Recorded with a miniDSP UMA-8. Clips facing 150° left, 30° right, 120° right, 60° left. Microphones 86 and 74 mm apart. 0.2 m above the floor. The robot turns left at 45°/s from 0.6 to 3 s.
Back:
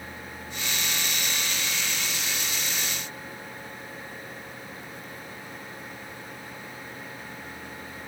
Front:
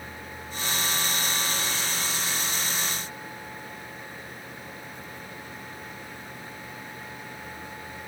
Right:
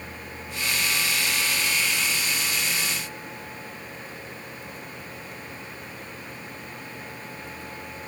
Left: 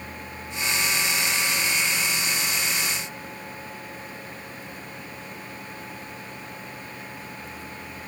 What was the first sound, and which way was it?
Only background noise.